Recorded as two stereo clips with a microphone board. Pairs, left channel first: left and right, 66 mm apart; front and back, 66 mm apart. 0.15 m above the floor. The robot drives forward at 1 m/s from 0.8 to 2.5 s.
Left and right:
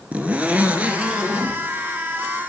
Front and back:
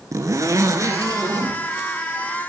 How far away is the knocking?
I don't hear knocking.